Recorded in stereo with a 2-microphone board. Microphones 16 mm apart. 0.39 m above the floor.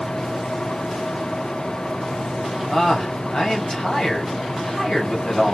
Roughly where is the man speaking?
Left.